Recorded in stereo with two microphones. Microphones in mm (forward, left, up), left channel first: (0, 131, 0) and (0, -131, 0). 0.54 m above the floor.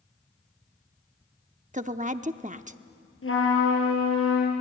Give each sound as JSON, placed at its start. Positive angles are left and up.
{"t": 1.7, "sound": "a woman speaking", "side_deg": -30, "distance_m": 0.7}
{"t": 3.2, "sound": "a trumpet", "side_deg": 50, "distance_m": 4.5}